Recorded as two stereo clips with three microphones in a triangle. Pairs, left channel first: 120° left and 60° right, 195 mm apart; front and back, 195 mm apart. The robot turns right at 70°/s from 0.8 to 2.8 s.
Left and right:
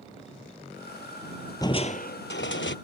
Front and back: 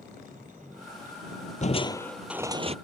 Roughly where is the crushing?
Ahead left.